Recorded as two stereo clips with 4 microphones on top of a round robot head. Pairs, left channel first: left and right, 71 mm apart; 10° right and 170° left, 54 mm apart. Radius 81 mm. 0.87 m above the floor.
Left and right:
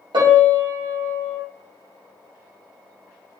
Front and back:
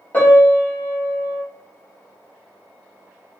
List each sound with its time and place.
0.1 s a piano: 75° right, 0.6 m